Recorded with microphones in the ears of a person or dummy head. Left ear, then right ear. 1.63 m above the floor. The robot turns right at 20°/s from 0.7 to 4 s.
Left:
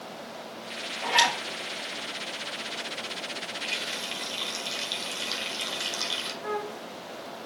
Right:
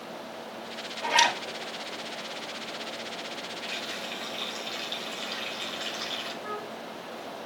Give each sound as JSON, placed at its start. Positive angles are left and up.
{"t": 1.0, "sound": "a zipper", "side_deg": 15, "distance_m": 6.5}
{"t": 3.6, "sound": "a running tap", "side_deg": 65, "distance_m": 4.5}
{"t": 6.4, "sound": "a flute", "side_deg": 30, "distance_m": 1.2}